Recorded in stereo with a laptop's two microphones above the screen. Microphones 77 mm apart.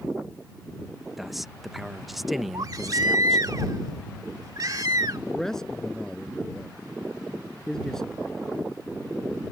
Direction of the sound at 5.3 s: 5° left (ahead or behind).